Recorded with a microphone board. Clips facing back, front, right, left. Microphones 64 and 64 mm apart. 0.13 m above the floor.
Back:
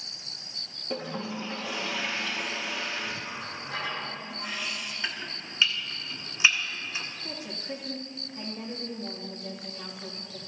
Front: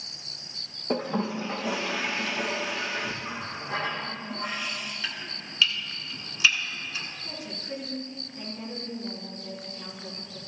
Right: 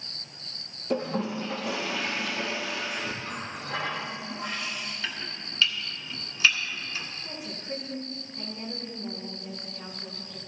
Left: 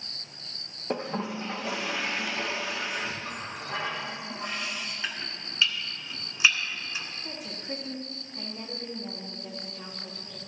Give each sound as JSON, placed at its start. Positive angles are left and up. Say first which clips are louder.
{"t": 0.9, "sound": "a toilet flushing", "louder": "front 6 dB, right 3 dB", "azimuth_deg": 35, "distance_m": 3.0}
{"t": 3.2, "sound": "a running tap", "louder": "front 2 dB, right 1 dB", "azimuth_deg": 45, "distance_m": 4.0}
{"t": 5.0, "sound": "chopping", "louder": "back 1 dB, even", "azimuth_deg": 135, "distance_m": 1.6}
{"t": 7.2, "sound": "a woman speaking", "louder": "even, even", "azimuth_deg": 115, "distance_m": 5.5}